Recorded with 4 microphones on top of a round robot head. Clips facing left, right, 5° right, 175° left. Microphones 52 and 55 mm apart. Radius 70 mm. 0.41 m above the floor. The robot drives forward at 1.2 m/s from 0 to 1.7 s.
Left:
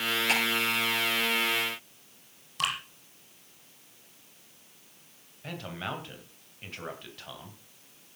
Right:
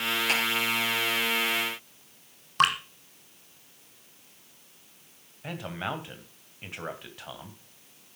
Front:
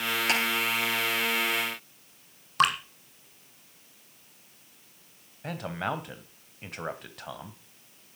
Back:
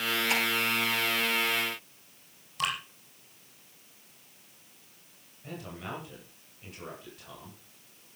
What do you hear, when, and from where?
0.3 s ticking: straight ahead, 9 m
2.6 s dripping: 45° right, 1.8 m
5.4 s a man speaking: 20° right, 2.5 m